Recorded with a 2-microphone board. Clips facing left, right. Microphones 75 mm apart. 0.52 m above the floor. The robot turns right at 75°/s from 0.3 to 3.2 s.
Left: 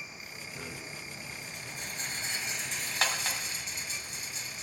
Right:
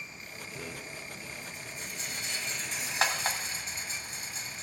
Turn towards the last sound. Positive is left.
turn(degrees=-40)  # may be behind; listen again after turning